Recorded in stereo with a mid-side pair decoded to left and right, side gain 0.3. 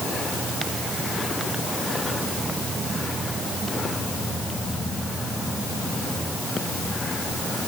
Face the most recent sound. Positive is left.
No sound to turn to.